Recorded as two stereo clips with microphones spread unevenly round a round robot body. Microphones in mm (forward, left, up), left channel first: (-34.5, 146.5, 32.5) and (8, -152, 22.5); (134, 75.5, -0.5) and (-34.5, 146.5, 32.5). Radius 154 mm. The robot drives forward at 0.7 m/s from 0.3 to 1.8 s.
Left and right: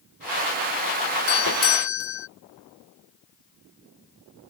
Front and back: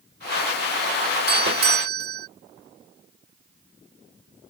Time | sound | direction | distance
1.3 | a doorbell | 130° left | ?